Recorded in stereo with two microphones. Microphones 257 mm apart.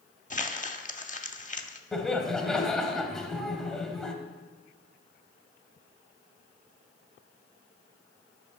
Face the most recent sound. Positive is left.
turn(degrees=0)  # may be behind; listen again after turning